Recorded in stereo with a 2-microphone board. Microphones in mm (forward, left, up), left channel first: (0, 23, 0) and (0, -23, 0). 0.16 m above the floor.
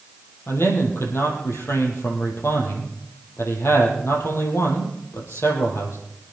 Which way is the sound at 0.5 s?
75° left (ahead or behind).